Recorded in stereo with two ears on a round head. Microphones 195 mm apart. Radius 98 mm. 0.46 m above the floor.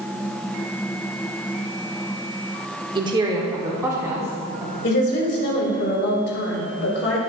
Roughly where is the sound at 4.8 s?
Left.